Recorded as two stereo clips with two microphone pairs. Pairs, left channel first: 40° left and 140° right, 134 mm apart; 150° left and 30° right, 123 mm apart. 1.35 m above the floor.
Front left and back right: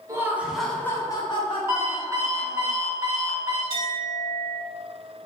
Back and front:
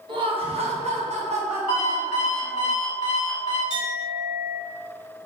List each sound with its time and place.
0.1 s laughter: 75° right, 0.7 m; by 2.7 s 20° left, 1.4 m
1.7 s an alarm clock: 155° left, 1.4 m
3.7 s a clink: straight ahead, 1.7 m